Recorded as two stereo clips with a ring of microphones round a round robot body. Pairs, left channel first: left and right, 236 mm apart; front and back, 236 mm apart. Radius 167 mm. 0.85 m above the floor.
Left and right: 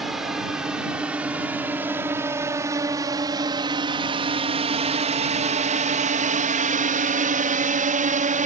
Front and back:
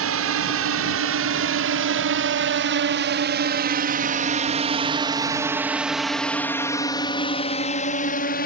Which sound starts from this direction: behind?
A drone, at 0.0 s.